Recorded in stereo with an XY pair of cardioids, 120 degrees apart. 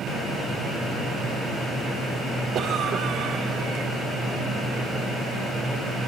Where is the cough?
55° right, 5 m.